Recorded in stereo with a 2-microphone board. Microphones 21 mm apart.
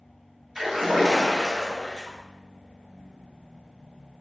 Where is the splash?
30° right (ahead or behind), 1.7 m.